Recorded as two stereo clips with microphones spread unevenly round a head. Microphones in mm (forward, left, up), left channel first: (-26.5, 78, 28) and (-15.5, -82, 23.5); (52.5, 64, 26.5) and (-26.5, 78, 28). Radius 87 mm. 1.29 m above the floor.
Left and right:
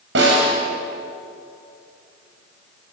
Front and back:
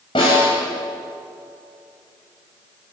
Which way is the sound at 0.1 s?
65° right.